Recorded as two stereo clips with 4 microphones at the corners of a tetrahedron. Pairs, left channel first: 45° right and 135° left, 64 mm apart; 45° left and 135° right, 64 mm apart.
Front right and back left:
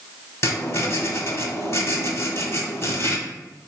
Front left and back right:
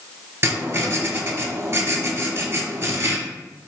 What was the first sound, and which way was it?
Writing, 90° right.